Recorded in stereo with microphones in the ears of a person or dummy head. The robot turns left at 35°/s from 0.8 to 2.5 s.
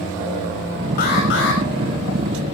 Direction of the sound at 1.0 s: 45° left (ahead or behind).